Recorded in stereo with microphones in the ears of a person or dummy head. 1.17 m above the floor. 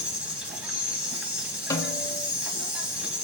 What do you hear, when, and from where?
0.0 s an insect: 5° right (ahead or behind), 3.5 m
1.7 s a snare drum: 15° left (ahead or behind), 2.5 m